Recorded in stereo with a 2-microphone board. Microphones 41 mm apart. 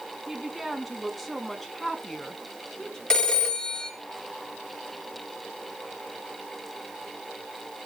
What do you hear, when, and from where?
0.3 s a woman speaking: 10° right (ahead or behind), 1.6 m; by 3.0 s 15° left (ahead or behind), 1.7 m
3.1 s a phone ringing: 20° left (ahead or behind), 1.8 m